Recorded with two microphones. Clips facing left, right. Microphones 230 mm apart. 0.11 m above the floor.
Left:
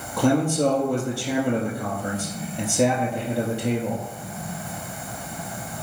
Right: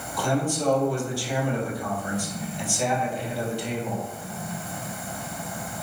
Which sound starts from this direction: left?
A man speaking, at 0.2 s.